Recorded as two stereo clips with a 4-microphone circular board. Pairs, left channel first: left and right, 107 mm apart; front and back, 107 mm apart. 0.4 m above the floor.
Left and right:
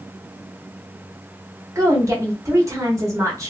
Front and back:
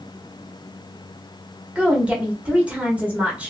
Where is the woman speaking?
115° right, 1.0 m.